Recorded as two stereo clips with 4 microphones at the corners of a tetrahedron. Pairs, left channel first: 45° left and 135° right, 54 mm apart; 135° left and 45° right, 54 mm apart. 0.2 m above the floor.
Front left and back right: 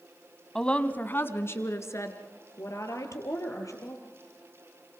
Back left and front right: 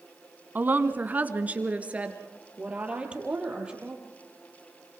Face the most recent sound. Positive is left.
turn(degrees=30)